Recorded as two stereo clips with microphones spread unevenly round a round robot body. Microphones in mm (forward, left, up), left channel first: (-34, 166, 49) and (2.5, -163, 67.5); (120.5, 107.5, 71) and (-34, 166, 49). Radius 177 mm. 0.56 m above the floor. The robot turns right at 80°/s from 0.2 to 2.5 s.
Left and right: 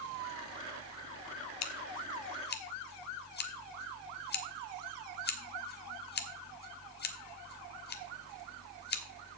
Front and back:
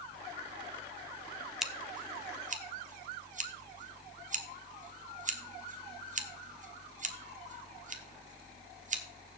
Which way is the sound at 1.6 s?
75° left.